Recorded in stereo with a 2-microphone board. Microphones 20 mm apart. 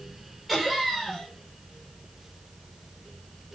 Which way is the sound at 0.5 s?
10° left (ahead or behind).